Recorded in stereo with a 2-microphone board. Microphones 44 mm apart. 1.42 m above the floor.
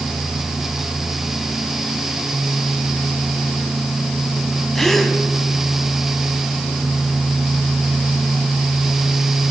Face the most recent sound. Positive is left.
turn(degrees=5)  # may be behind; listen again after turning